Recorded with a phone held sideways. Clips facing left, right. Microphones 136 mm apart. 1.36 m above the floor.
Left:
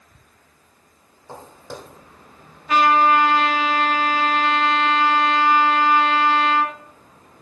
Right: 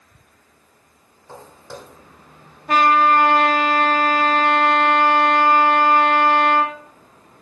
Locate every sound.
1.3 s footsteps: 20° left (ahead or behind), 2.0 m
2.7 s a trumpet: 55° right (ahead or behind), 2.5 m